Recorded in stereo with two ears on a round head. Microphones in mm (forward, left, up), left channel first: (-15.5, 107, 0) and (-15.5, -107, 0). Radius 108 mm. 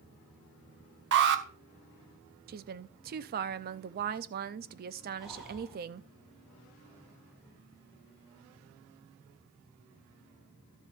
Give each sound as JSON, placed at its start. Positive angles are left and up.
{"t": 1.1, "sound": "an alarm", "side_deg": -50, "distance_m": 1.0}
{"t": 2.5, "sound": "a woman speaking", "side_deg": -40, "distance_m": 0.6}
{"t": 5.2, "sound": "breathing", "side_deg": 0, "distance_m": 4.0}